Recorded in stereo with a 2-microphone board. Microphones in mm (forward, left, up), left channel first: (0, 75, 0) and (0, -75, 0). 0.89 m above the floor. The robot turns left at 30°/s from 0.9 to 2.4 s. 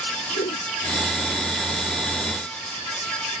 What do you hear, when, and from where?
0.3 s a whoosh: 70° left (ahead or behind)